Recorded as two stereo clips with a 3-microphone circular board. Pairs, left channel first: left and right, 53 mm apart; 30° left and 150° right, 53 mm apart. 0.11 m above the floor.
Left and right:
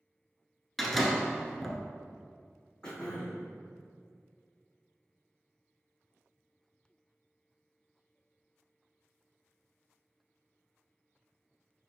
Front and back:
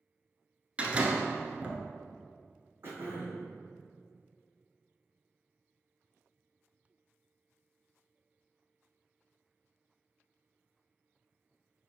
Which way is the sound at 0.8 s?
175° left.